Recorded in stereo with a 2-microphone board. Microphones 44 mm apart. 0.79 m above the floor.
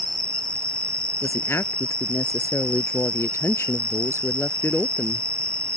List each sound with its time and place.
0.0 s an insect: 25° left (ahead or behind)
1.2 s a woman speaking: 75° left (ahead or behind)